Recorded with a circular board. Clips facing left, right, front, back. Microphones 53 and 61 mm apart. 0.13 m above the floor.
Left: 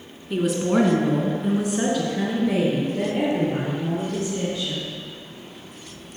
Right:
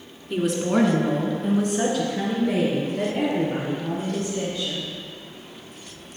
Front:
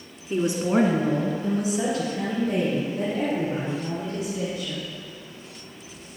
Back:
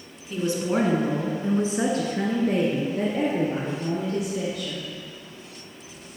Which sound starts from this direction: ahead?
A woman speaking, at 0.3 s.